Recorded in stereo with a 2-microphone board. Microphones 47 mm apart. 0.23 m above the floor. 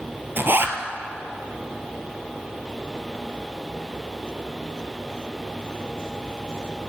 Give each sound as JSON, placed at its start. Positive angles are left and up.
{"t": 0.4, "sound": "a zipper", "side_deg": -50, "distance_m": 1.0}